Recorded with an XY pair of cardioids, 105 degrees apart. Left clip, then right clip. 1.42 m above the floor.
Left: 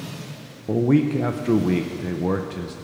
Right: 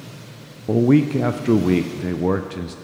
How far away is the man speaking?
About 0.5 m.